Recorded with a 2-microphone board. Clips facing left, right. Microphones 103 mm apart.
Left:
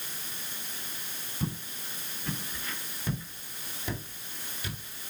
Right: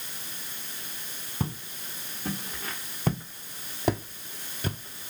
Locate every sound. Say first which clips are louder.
1.4 s footsteps: right 1 dB; 75° right (ahead or behind), 2 m; by 5.1 s 25° right (ahead or behind), 0.6 m